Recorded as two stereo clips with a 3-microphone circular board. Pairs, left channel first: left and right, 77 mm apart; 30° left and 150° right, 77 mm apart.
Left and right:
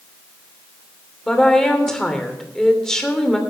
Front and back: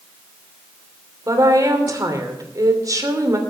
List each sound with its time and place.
1.3 s a woman speaking: 170° left, 3 m